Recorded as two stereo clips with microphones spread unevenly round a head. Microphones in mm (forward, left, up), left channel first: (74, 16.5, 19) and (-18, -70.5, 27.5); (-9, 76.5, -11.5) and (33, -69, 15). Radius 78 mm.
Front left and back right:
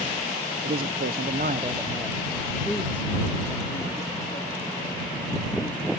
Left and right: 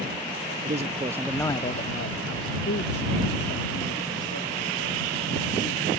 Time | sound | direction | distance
0.6 | a man speaking | 120° right | ?